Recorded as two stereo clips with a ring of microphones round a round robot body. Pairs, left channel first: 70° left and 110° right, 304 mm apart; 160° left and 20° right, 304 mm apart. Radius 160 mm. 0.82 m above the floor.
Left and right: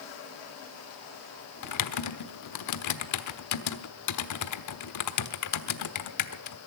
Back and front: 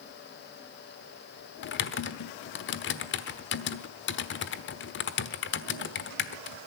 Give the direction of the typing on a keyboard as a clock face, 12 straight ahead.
9 o'clock.